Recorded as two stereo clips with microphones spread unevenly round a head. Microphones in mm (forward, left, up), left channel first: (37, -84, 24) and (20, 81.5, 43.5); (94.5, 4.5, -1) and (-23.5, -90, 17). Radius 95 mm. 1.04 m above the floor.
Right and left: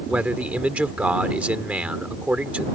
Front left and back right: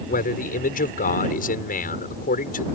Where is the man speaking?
15° left.